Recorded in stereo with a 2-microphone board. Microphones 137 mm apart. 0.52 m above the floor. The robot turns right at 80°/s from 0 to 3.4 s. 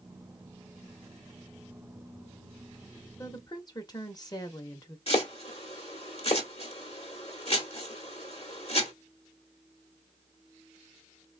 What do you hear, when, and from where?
3.2 s a woman speaking: 20° left (ahead or behind), 0.8 m; by 5.0 s 30° left (ahead or behind), 0.8 m
5.1 s chopping: 45° left (ahead or behind), 1.0 m